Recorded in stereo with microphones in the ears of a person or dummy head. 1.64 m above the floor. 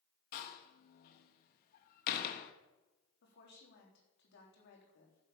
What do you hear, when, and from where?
0.3 s a door slam: 45° left (ahead or behind), 1.3 m
3.2 s a woman speaking: 60° left (ahead or behind), 3.5 m